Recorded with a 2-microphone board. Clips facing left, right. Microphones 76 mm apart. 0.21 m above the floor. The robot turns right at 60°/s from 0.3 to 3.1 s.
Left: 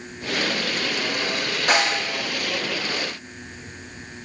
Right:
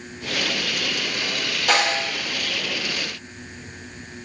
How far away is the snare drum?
About 1.3 m.